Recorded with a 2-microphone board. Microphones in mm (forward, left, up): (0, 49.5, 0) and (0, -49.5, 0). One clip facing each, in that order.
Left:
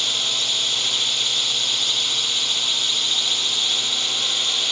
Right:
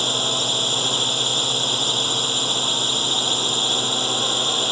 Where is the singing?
No singing in this recording.